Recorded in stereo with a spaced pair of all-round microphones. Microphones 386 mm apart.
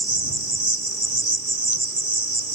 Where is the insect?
50° right (ahead or behind).